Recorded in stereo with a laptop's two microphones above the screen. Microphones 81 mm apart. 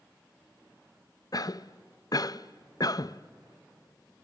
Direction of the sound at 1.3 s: 50° left (ahead or behind).